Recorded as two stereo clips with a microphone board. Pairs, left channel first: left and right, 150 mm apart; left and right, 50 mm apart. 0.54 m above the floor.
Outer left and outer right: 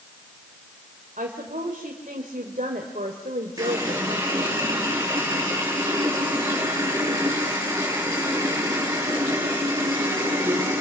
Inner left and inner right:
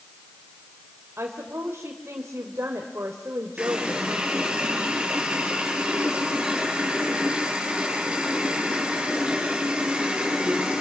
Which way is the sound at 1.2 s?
55° right (ahead or behind).